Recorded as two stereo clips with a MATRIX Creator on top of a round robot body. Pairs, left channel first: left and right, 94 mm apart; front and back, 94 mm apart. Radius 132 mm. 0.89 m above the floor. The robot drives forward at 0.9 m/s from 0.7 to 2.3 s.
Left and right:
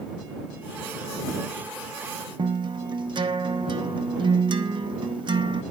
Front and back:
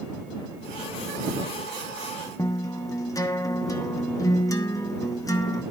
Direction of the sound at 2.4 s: 55° right.